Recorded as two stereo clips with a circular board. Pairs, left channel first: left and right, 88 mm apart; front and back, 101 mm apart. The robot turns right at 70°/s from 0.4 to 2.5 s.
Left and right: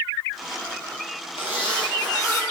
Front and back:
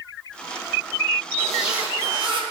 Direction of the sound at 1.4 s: 75° left.